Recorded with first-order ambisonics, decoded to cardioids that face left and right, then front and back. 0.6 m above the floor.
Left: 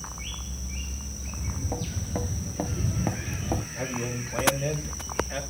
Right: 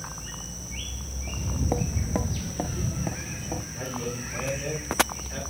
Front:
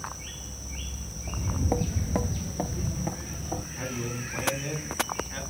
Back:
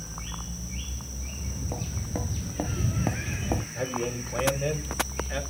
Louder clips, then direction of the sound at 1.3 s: Right 6 dB, front 9 dB; 40° right.